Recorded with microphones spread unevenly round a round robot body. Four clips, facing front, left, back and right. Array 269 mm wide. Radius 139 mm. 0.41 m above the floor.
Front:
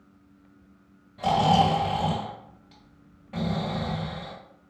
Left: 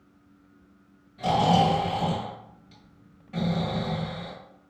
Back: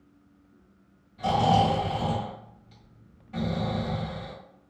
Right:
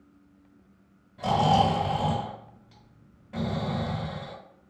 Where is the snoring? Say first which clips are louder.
Left 1 dB, front 1 dB; 5° right, 1.8 m.